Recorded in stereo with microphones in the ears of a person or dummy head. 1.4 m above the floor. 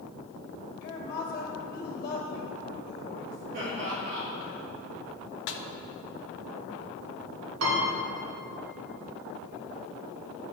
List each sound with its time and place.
0.8 s a woman speaking: 55° left (ahead or behind), 1.9 m
3.5 s laughter: 40° right (ahead or behind), 1.9 m
5.5 s a snare drum: 60° left (ahead or behind), 0.5 m
7.6 s a piano: 75° right (ahead or behind), 1.9 m